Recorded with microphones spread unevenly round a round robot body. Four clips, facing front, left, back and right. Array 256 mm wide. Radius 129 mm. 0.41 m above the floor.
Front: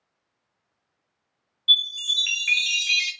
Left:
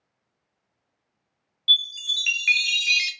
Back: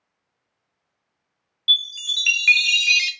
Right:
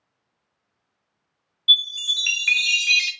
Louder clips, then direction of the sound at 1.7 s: Right 3 dB, even; 160° right.